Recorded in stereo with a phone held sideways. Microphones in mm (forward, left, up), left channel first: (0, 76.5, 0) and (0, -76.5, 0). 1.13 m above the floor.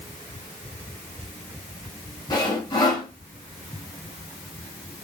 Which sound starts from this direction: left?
Sawing, at 2.3 s.